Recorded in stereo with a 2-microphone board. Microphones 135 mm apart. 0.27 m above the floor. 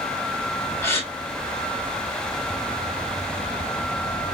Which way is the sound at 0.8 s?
20° left (ahead or behind).